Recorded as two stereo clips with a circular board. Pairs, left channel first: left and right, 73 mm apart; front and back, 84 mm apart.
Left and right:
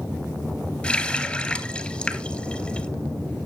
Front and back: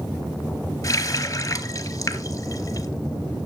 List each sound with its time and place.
0.8 s a running tap: 20° left, 1.0 m